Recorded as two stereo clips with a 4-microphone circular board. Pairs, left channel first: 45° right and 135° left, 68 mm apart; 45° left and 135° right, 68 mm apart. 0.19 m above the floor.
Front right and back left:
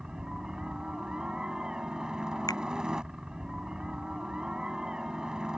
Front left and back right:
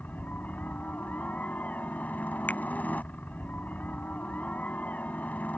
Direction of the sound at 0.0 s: 70° left.